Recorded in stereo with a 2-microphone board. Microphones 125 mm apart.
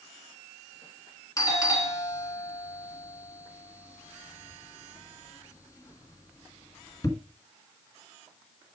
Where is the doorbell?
30° left (ahead or behind), 2 m.